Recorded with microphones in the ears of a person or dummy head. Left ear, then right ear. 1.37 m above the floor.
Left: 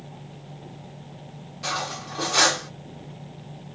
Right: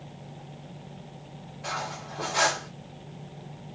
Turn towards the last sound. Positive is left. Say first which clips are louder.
# left 4 dB
turn(degrees=60)  # may be behind; listen again after turning